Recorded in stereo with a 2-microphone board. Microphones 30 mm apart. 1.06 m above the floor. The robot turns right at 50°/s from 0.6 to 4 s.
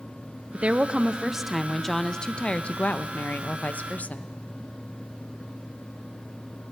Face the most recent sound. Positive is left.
turn(degrees=120)